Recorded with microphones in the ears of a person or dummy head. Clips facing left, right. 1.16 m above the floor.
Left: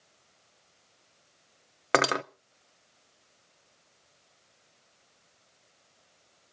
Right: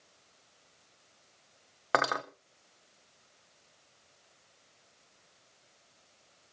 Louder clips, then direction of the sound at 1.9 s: Left 5 dB; 40° left (ahead or behind).